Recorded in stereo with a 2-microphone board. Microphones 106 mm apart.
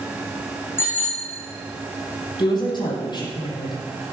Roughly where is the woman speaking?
Left.